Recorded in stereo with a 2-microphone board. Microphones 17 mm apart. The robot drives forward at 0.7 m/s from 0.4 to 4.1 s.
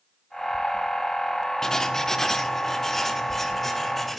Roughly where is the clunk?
No clunk in this recording.